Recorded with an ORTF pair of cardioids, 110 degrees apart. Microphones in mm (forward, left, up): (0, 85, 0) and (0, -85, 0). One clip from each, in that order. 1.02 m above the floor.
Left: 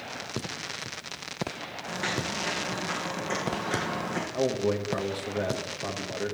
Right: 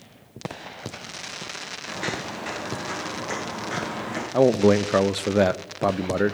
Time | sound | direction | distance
1.9 | footsteps | 15° right | 3 m
4.3 | a man speaking | 65° right | 0.5 m